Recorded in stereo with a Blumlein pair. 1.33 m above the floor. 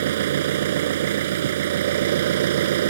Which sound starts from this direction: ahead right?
An engine running, at 0.0 s.